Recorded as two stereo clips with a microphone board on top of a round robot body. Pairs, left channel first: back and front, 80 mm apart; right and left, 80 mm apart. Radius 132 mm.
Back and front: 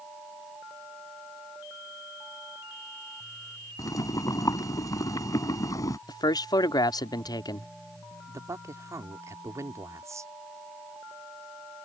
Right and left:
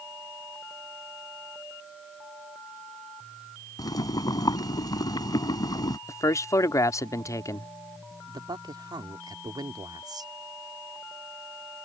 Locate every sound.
3.8 s boiling: 130° right
6.1 s a man speaking: 140° right
8.3 s a man speaking: 55° left